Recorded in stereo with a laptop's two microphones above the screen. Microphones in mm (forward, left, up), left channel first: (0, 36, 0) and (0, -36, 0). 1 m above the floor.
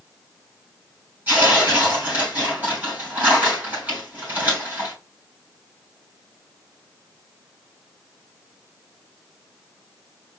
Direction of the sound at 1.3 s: 25° right (ahead or behind).